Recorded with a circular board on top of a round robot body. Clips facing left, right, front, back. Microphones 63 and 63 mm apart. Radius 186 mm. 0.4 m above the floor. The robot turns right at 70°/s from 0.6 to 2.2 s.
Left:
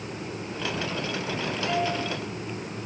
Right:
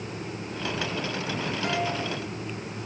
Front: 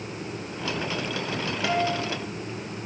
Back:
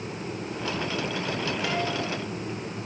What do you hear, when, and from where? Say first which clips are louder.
1.6 s a guitar: left 2 dB, front 6 dB; 65° right, 8 m; by 2.1 s 35° right, 8 m